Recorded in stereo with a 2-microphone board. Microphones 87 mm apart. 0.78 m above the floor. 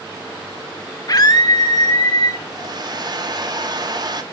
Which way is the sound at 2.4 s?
50° right (ahead or behind).